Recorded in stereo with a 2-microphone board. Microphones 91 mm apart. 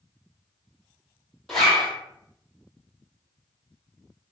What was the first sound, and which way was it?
A zipper, 5° left (ahead or behind).